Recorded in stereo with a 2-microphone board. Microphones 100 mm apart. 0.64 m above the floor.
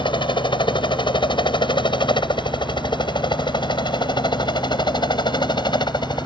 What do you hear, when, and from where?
0.0 s a helicopter: 50° left (ahead or behind); by 6.3 s 45° left (ahead or behind)